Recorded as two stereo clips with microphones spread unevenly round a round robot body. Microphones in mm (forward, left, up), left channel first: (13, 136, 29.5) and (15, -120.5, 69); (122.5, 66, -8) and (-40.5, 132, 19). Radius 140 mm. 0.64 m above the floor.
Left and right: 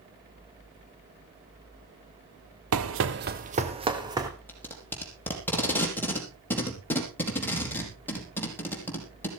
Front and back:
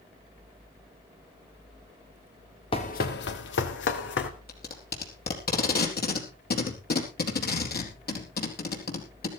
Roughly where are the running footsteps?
Right.